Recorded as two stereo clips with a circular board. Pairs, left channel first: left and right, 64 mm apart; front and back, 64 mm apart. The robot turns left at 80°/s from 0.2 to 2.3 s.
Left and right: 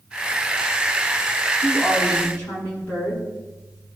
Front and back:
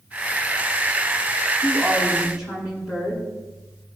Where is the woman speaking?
85° left, 7.5 m; by 3.3 s 30° left, 7.5 m.